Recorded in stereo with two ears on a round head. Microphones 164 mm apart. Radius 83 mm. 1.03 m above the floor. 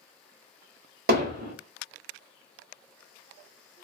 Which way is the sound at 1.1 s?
55° right (ahead or behind).